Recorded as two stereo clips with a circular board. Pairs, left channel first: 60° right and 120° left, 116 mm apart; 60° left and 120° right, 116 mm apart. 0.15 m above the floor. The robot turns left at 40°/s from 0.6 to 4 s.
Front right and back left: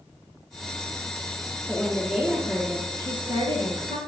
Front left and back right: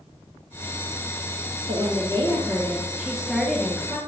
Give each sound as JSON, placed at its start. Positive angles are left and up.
{"t": 1.7, "sound": "a woman speaking", "azimuth_deg": -140, "distance_m": 2.5}